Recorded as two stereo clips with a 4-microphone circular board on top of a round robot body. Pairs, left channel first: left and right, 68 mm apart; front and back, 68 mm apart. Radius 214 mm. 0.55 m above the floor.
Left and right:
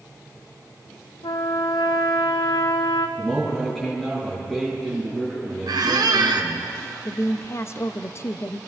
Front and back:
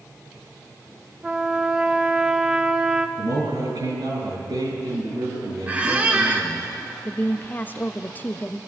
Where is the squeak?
110° right, 0.8 m.